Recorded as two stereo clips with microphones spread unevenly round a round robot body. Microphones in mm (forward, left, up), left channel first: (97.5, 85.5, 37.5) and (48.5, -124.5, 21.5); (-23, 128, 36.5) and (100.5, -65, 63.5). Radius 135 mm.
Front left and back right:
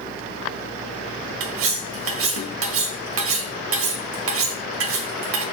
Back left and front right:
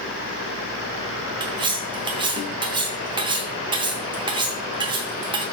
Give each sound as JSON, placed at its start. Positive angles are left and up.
{"t": 1.4, "sound": "cutlery clinking", "azimuth_deg": -130, "distance_m": 1.5}